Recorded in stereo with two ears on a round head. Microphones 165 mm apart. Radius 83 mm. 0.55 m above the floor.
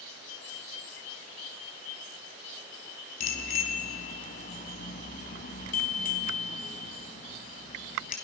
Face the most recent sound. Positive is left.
turn(degrees=45)  # may be behind; listen again after turning